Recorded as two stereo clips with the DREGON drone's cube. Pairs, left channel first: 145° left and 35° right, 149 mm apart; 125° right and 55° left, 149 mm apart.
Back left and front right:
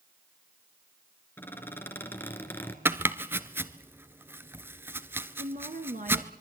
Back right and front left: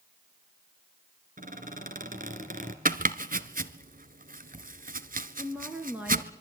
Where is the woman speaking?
25° right, 2.5 m.